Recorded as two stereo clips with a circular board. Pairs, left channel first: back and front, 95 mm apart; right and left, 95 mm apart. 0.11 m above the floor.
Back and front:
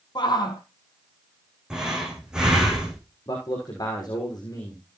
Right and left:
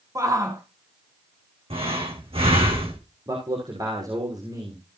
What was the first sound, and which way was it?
A shout, 145° left.